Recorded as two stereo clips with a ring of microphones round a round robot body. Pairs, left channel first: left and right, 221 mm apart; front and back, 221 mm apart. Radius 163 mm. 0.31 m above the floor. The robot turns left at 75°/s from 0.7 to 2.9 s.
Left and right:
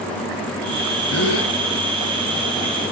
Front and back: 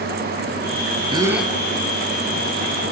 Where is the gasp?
115° left, 1.2 m; by 1.5 s 80° left, 1.2 m.